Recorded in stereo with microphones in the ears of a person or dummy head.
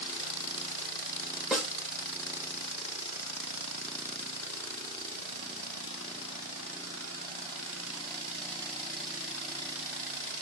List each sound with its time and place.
1.5 s a snare drum: 5° left (ahead or behind), 1.9 m